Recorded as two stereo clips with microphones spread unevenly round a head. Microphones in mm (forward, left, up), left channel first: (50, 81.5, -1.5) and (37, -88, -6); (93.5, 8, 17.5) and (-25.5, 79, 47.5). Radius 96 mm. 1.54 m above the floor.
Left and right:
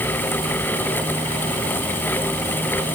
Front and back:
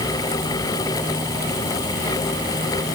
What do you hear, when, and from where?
Only background noise.